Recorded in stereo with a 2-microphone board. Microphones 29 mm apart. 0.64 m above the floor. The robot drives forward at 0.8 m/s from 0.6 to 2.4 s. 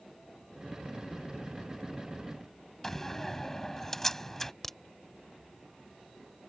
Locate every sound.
2.8 s a door slam: 15° left (ahead or behind)
4.6 s a crack: 15° left (ahead or behind)